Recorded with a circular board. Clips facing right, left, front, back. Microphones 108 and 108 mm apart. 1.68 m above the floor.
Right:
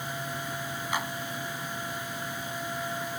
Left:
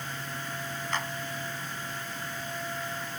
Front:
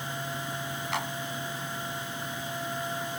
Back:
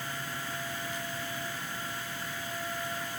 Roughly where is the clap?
Ahead.